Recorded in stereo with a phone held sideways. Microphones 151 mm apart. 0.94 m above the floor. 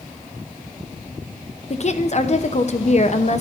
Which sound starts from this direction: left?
A woman speaking, at 1.7 s.